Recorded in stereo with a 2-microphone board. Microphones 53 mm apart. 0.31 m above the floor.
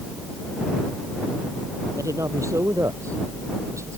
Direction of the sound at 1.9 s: 75° right (ahead or behind).